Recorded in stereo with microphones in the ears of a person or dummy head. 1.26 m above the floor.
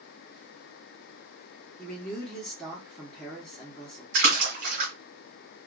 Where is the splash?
50° right (ahead or behind), 1.7 m.